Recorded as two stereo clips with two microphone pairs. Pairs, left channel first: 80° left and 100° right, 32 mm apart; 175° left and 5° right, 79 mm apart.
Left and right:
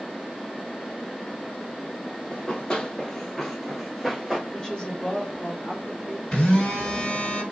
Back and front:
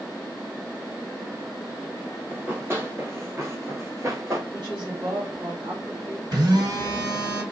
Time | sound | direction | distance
2.3 | running footsteps | 45° left | 1.3 m
4.5 | a woman speaking | 10° left | 1.8 m
6.3 | a phone buzzing | 20° left | 1.9 m